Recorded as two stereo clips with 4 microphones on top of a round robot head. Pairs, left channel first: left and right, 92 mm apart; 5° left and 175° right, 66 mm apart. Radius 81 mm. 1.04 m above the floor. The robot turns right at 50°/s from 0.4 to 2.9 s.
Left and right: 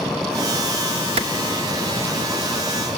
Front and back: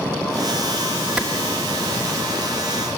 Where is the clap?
90° right, 1.9 m; by 1.3 s 85° right, 1.9 m.